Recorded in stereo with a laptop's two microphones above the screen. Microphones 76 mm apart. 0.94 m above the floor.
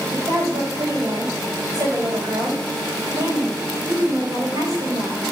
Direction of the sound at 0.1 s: 55° right (ahead or behind).